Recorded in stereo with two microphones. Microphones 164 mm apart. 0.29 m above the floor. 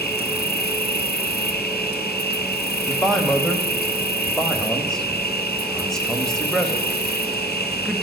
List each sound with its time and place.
0.0 s an insect: 75° left (ahead or behind), 1.0 m
2.9 s a man speaking: centre (ahead or behind), 1.0 m